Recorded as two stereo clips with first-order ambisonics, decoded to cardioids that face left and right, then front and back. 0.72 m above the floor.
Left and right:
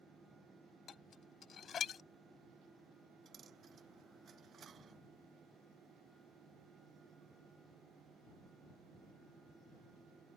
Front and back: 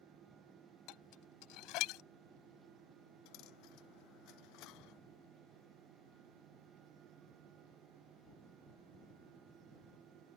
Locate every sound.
0.9 s dishes clattering: 25° left
3.2 s a dropped coin: 25° right